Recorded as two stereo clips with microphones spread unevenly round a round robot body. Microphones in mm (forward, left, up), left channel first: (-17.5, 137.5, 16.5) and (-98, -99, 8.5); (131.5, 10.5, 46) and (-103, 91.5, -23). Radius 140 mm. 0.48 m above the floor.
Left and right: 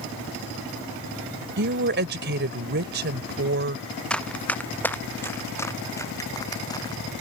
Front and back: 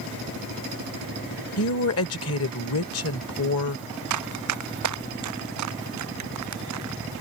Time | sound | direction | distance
1.6 | a woman speaking | 65° right | ?
4.1 | running footsteps | 155° left | ?